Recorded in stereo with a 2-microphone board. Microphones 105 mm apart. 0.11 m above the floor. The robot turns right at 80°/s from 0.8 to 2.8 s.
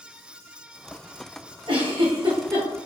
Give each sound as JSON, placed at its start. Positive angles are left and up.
{"t": 1.7, "sound": "a giggle", "side_deg": -55, "distance_m": 1.4}